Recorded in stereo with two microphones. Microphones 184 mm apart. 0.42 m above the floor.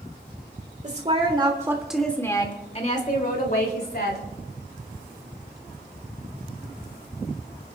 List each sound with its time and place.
0.8 s a woman speaking: 40° right (ahead or behind), 1.9 m; by 4.2 s 60° left (ahead or behind), 3 m